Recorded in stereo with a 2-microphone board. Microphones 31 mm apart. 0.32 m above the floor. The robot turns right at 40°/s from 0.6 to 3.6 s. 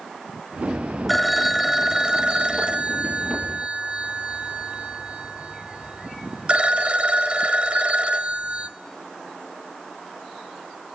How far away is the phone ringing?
About 0.8 m.